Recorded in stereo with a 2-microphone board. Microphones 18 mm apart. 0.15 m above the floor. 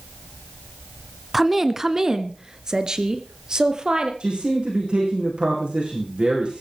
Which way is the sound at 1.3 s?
10° right (ahead or behind).